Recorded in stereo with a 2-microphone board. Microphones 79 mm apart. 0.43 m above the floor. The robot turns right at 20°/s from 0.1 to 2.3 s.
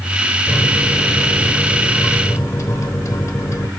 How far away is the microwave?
About 1.3 m.